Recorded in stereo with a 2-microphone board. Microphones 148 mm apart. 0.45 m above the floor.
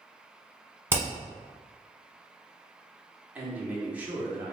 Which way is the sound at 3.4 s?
10° right (ahead or behind).